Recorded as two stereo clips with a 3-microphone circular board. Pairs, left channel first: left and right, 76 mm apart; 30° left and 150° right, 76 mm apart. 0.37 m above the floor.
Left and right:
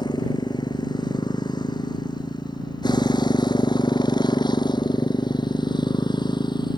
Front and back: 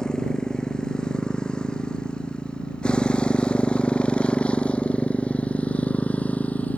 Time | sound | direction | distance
0.0 | a motorcycle | 110° left | ?